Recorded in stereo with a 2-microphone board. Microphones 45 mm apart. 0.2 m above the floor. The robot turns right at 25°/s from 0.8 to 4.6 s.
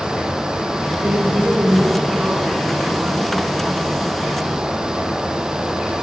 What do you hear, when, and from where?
1.0 s a woman speaking: 65° right, 2 m; by 3.4 s 5° right, 2 m